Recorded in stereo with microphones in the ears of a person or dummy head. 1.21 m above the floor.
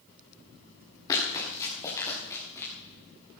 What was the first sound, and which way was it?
Running footsteps, 25° left (ahead or behind).